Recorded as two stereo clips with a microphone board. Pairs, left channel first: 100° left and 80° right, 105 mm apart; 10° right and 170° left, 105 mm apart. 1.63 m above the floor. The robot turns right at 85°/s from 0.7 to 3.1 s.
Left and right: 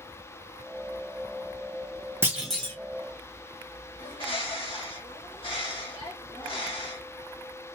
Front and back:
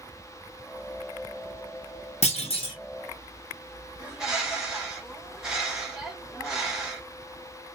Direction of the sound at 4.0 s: 85° left.